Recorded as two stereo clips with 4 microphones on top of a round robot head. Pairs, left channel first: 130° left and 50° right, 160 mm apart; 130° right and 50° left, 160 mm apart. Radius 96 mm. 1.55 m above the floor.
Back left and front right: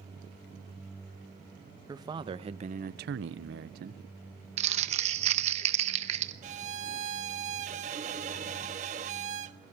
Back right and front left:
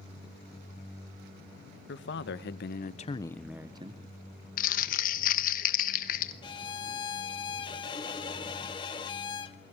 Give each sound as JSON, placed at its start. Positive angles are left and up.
{"t": 1.9, "sound": "a man speaking", "azimuth_deg": -120, "distance_m": 2.0}
{"t": 4.6, "sound": "crumpling", "azimuth_deg": -95, "distance_m": 1.0}
{"t": 6.4, "sound": "a violin", "azimuth_deg": -75, "distance_m": 1.1}